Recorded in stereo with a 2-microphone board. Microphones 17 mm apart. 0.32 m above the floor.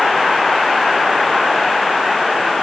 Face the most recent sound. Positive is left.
No sound to turn to.